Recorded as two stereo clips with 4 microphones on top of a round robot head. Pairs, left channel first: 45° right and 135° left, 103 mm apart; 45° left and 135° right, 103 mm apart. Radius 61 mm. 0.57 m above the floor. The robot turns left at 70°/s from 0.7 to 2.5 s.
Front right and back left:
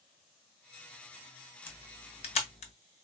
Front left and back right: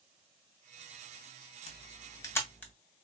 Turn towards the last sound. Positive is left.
turn(degrees=-35)